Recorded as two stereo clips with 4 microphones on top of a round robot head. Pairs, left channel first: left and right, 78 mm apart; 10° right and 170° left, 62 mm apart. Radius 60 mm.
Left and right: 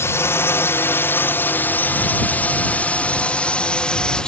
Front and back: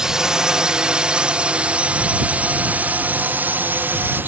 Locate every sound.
0.0 s a drone: 95° left; by 4.3 s 160° left